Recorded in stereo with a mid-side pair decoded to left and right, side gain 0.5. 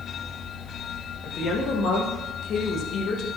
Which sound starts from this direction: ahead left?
A woman speaking, at 1.2 s.